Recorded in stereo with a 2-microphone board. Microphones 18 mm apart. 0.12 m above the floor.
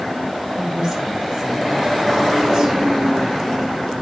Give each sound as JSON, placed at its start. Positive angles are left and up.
{"t": 0.6, "sound": "a woman speaking", "side_deg": -35, "distance_m": 5.0}